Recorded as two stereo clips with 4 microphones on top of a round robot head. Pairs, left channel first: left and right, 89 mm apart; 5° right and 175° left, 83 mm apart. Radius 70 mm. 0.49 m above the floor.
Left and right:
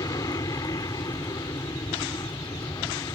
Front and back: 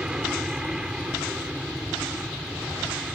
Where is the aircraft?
100° left; by 3.2 s 95° left.